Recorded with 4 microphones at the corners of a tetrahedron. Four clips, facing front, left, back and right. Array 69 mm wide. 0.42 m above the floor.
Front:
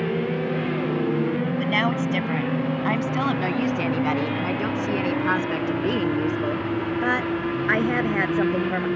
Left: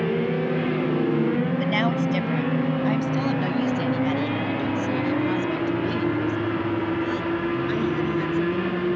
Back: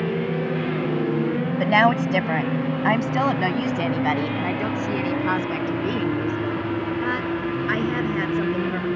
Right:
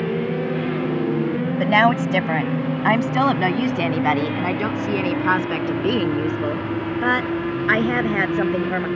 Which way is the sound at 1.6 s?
130° right.